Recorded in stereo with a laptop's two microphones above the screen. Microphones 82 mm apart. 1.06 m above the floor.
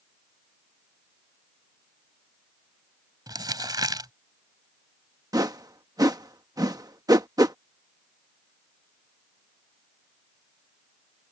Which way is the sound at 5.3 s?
50° right (ahead or behind).